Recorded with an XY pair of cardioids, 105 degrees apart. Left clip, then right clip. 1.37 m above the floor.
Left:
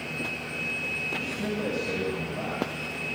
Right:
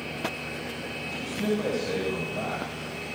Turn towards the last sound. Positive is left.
turn(degrees=-15)